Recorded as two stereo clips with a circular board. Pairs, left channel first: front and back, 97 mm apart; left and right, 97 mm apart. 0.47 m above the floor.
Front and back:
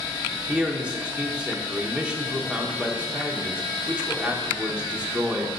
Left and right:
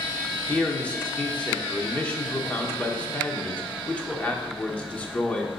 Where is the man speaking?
130° left, 0.8 m.